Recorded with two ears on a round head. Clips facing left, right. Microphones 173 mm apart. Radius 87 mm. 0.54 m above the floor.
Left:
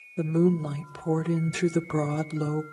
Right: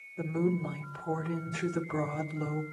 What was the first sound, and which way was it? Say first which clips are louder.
A woman speaking: left 7 dB; 50° left (ahead or behind).